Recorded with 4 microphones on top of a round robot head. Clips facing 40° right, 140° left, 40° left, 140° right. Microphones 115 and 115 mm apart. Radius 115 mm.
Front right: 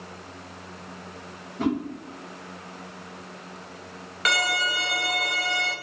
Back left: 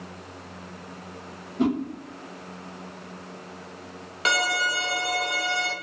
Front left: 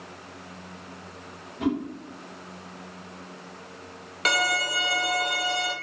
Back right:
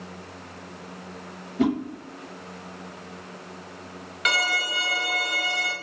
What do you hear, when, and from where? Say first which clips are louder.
1.6 s a whoosh: back left 2 dB, back right 4 dB; 145° right, 0.7 m
4.2 s a violin: back left 1 dB, front left 2 dB; 85° left, 0.8 m